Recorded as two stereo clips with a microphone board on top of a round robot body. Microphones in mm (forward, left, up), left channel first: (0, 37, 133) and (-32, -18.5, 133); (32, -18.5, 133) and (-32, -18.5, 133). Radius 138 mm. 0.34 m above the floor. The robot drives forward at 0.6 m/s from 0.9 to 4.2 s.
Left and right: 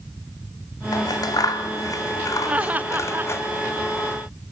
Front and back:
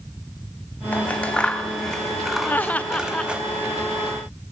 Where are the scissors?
65° left, 2.5 m; by 3.4 s 105° left, 2 m.